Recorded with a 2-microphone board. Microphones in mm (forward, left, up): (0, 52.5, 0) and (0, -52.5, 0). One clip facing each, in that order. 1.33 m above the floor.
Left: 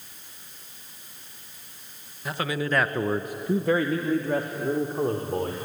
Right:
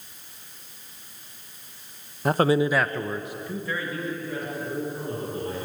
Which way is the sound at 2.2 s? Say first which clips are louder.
Right 8 dB; 50° right (ahead or behind).